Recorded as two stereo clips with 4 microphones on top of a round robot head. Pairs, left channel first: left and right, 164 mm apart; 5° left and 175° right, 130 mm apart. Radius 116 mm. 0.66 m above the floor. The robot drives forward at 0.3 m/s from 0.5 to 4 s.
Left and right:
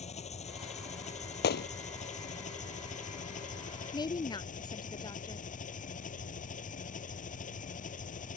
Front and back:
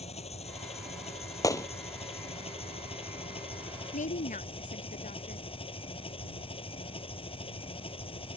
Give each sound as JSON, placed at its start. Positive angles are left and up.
{"t": 0.0, "sound": "an engine running", "azimuth_deg": 40}
{"t": 1.4, "sound": "a gunshot", "azimuth_deg": 70}
{"t": 3.9, "sound": "a woman speaking", "azimuth_deg": 25}